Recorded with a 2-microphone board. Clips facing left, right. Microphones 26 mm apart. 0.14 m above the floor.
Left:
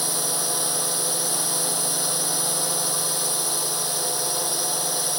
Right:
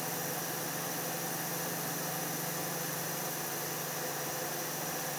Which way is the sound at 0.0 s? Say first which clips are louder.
Left 10 dB; 70° left (ahead or behind).